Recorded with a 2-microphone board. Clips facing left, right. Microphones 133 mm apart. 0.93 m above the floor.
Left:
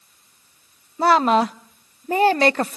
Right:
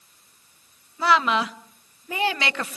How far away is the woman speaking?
About 0.6 m.